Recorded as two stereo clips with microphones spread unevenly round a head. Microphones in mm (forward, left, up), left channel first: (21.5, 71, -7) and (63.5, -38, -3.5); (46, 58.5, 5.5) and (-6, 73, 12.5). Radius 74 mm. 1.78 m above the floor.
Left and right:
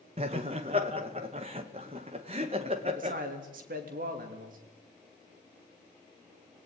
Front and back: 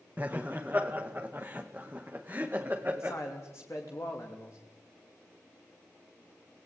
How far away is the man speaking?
About 3 m.